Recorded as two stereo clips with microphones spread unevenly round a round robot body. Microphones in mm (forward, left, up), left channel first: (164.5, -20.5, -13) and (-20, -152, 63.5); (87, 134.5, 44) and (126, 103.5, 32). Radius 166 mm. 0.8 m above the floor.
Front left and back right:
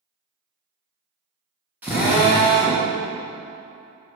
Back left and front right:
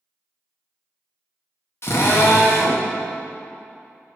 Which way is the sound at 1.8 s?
115° left.